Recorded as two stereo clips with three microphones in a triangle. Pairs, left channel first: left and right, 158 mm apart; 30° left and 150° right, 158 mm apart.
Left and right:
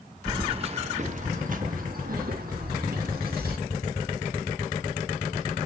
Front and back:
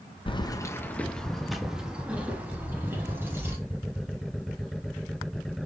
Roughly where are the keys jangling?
Ahead right.